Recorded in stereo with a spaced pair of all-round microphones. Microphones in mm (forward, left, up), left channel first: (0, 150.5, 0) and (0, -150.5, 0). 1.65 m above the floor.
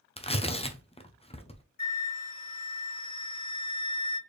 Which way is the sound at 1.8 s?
65° left (ahead or behind).